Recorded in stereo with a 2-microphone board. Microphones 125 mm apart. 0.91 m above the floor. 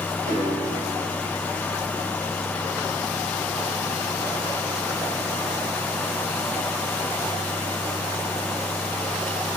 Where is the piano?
80° right, 7 m.